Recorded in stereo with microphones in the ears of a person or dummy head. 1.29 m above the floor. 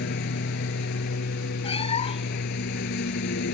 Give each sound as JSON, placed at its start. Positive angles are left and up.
{"t": 0.0, "sound": "a lawn mower", "side_deg": 65}
{"t": 1.6, "sound": "a cat meowing", "side_deg": 35}